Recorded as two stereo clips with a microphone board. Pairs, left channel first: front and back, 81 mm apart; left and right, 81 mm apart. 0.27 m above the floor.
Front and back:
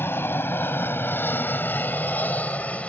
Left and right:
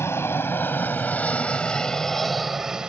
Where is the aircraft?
50° left; by 2.9 s 30° right.